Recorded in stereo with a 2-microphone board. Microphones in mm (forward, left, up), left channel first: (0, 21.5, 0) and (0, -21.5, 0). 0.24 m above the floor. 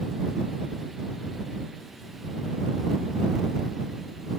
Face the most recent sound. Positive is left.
No sound to turn to.